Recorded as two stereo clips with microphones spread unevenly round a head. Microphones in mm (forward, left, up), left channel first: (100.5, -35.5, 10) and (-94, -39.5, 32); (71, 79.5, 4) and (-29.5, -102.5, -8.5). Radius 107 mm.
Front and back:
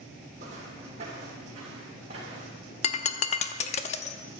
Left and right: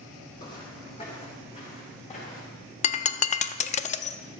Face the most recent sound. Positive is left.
turn(degrees=50)